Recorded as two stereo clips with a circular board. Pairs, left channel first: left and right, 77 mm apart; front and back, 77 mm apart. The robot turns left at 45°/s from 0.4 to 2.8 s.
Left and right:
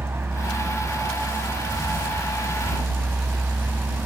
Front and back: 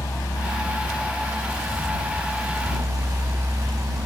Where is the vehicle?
40° right; by 4.1 s 150° right.